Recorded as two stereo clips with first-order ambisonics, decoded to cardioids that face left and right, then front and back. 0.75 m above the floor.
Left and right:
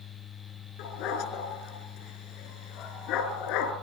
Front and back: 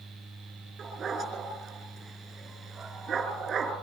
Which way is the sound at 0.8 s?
110° left.